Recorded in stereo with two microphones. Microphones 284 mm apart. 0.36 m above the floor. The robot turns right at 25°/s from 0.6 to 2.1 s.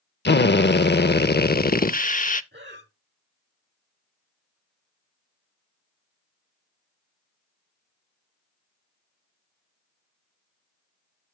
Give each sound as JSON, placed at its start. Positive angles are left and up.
{"t": 0.2, "sound": "a drill", "azimuth_deg": 95, "distance_m": 0.6}
{"t": 2.5, "sound": "breathing", "side_deg": -40, "distance_m": 1.2}